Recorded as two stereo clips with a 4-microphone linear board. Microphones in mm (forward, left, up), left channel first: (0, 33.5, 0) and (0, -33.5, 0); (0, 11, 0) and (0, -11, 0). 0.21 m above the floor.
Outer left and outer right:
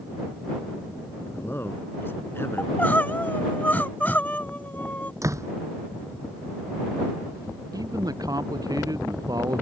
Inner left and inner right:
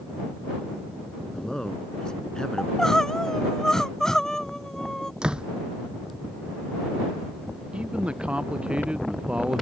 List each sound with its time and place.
1.2 s a man speaking: 35° left (ahead or behind)
2.6 s crying: 25° left (ahead or behind)
5.2 s a door slam: 50° right (ahead or behind)
7.7 s a man speaking: 65° right (ahead or behind)